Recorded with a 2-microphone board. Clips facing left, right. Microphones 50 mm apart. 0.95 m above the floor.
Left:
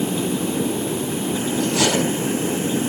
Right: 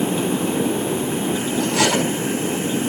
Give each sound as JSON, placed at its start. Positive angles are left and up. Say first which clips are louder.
{"t": 1.6, "sound": "cutlery clinking", "louder": "right 1 dB", "side_deg": -85, "distance_m": 4.0}